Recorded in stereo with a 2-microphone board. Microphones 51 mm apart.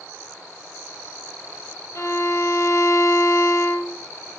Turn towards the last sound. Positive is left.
turn(degrees=60)  # may be behind; listen again after turning